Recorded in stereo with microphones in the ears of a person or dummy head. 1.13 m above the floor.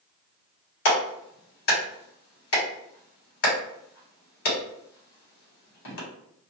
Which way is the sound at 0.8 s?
75° left (ahead or behind).